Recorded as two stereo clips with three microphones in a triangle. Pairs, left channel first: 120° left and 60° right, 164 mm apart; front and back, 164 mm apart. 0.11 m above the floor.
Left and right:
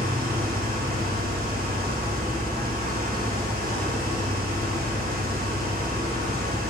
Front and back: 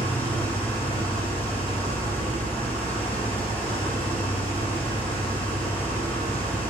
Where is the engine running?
80° right, 3 m.